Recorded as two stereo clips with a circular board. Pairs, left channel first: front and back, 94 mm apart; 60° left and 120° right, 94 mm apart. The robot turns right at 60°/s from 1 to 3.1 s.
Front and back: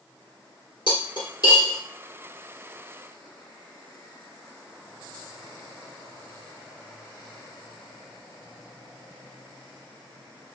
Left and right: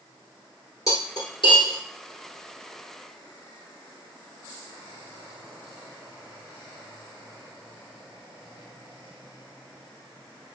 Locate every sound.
0.9 s cutlery clinking: 10° left, 1.5 m; by 1.8 s 55° left, 1.5 m